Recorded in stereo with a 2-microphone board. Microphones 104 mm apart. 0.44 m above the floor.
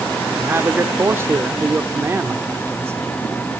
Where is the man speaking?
25° right (ahead or behind), 1.0 m.